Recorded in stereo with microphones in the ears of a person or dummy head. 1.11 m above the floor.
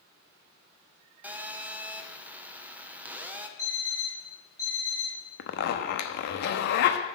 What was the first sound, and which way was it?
A phone buzzing, 5° right (ahead or behind).